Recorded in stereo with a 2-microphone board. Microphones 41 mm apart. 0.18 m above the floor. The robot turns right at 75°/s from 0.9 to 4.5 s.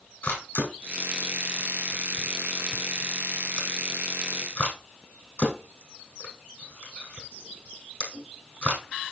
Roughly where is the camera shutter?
Left.